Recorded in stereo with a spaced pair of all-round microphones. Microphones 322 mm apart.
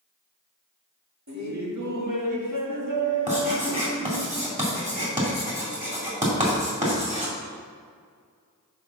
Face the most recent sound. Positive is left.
turn(degrees=-25)  # may be behind; listen again after turning